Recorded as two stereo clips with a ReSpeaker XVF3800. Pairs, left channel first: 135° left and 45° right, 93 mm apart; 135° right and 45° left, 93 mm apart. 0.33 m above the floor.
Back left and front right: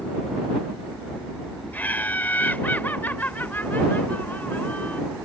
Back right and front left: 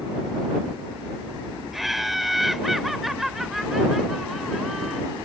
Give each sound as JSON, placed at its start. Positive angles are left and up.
{"t": 1.7, "sound": "laughter", "azimuth_deg": 130}